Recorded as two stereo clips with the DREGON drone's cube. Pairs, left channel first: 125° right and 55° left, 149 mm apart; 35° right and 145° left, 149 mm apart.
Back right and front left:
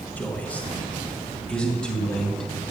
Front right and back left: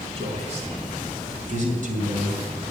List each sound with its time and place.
0.2 s a man speaking: 160° left, 2 m; by 2.5 s 150° left, 3 m